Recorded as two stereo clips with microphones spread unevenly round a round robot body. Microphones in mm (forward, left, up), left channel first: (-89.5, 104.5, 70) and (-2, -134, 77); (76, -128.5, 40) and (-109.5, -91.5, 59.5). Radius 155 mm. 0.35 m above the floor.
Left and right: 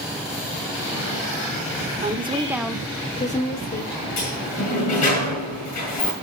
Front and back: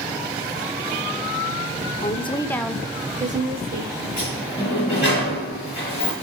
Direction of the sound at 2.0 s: 15° right.